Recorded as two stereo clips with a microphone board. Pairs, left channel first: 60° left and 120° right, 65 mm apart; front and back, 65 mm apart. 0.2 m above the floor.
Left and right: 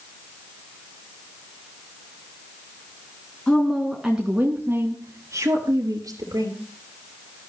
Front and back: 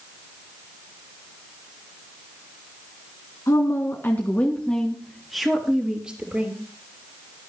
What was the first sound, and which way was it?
A woman speaking, 20° right.